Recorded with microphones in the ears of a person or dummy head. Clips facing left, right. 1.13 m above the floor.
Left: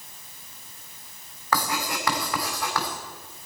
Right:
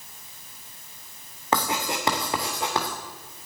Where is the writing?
25° right (ahead or behind), 2.5 m.